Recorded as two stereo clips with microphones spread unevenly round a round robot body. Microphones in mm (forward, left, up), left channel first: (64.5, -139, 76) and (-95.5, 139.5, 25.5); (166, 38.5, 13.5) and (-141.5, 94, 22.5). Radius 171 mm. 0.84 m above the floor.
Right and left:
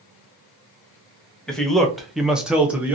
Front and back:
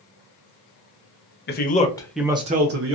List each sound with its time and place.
1.5 s a man speaking: 35° left, 0.7 m; by 3.0 s 165° right, 0.7 m